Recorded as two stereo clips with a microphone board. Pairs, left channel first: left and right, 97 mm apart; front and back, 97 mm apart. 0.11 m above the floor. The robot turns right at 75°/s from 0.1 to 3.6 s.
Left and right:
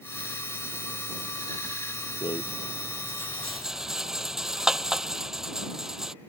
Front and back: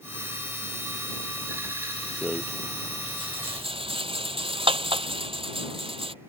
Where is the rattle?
80° left; by 6.2 s 175° right.